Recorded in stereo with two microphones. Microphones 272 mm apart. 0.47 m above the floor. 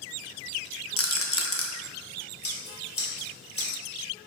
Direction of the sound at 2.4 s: 40° left (ahead or behind).